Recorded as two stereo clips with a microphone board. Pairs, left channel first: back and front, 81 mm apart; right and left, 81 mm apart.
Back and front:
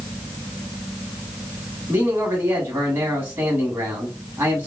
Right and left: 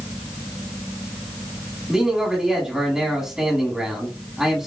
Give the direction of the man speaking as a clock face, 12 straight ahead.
11 o'clock.